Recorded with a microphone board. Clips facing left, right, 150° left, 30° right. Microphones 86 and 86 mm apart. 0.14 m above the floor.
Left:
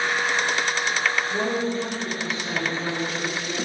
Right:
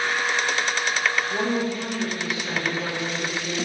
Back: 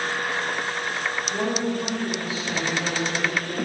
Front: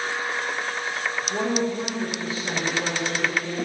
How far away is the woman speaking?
About 1.3 m.